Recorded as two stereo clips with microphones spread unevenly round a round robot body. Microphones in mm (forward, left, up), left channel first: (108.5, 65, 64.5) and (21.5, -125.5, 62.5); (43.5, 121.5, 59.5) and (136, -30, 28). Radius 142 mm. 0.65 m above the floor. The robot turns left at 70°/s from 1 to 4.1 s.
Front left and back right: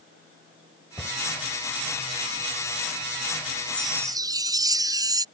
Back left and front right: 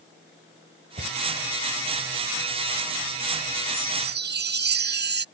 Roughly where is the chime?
Ahead.